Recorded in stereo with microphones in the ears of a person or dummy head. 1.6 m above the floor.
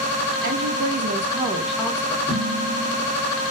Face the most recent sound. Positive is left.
turn(degrees=25)  # may be behind; listen again after turning